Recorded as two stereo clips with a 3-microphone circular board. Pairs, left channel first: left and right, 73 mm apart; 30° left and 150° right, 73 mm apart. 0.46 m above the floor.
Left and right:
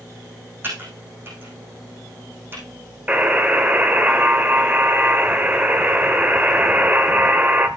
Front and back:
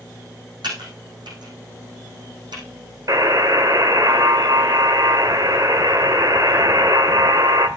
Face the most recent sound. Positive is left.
turn(degrees=-155)